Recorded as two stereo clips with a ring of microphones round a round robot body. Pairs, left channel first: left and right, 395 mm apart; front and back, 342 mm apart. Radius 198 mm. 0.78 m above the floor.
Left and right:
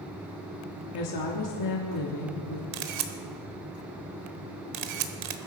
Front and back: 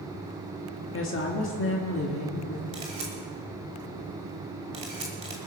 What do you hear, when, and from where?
0.9 s a woman speaking: 50° left, 1.6 m
2.7 s a camera shutter: 105° right, 1.2 m